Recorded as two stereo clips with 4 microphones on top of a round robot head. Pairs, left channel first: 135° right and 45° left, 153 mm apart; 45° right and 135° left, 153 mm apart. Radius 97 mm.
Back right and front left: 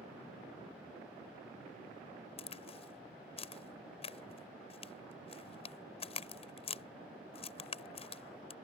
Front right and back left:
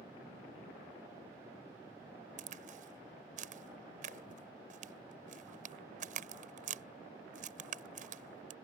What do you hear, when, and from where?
2.4 s a crack: 175° left